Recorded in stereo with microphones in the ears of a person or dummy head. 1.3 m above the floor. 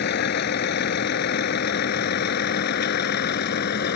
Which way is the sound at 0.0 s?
55° left (ahead or behind).